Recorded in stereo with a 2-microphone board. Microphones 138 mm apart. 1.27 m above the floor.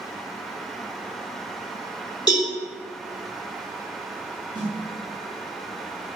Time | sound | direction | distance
2.3 | a cowbell | 35° left (ahead or behind) | 1.8 m
4.5 | a snare drum | 35° right (ahead or behind) | 1.0 m